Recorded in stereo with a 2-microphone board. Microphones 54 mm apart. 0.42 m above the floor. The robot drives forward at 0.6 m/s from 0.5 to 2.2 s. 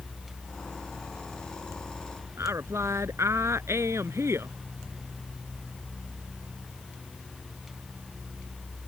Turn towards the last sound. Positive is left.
turn(degrees=-55)  # may be behind; listen again after turning